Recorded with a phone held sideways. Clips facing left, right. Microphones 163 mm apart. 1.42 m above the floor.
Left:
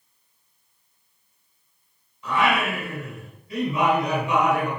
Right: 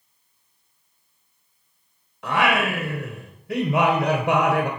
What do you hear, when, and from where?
2.2 s singing: 75° right (ahead or behind), 3 m